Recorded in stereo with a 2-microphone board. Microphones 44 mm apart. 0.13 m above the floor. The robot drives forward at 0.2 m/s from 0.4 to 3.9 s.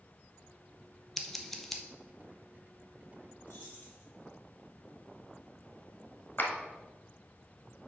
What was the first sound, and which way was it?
Scissors, 5° left (ahead or behind).